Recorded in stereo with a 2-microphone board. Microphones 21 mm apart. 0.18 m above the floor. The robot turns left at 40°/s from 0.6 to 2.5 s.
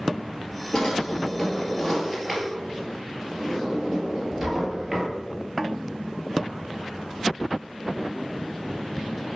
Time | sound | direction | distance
0.7 | a drawer | 40° left (ahead or behind) | 1.9 m